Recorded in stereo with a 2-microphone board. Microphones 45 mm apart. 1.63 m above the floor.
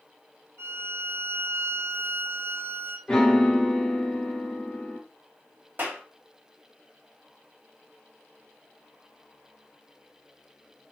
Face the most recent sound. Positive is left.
turn(degrees=-45)  # may be behind; listen again after turning